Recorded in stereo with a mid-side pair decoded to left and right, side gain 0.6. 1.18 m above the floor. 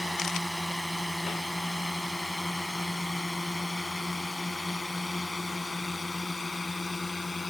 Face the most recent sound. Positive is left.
turn(degrees=20)